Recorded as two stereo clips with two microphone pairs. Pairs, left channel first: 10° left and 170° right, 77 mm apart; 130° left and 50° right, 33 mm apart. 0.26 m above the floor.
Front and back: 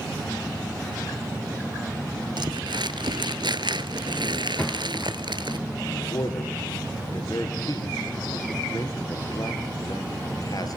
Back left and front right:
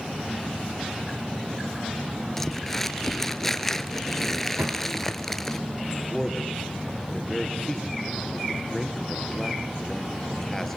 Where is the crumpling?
150° right, 1.4 m.